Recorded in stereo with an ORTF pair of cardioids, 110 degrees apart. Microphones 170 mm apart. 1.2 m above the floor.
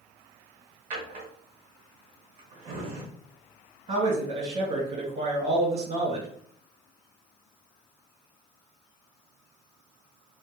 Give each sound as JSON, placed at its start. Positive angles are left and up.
{"t": 0.9, "sound": "a drawer", "azimuth_deg": -50, "distance_m": 1.0}
{"t": 3.9, "sound": "a man speaking", "azimuth_deg": -40, "distance_m": 1.2}